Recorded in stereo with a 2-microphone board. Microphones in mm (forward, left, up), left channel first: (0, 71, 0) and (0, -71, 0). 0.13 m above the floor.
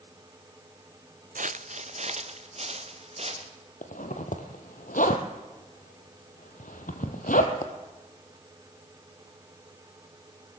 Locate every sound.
1.4 s footsteps: 70° right (ahead or behind), 0.5 m; by 3.5 s 45° right (ahead or behind), 3 m
3.8 s a zipper: 75° left (ahead or behind), 1.8 m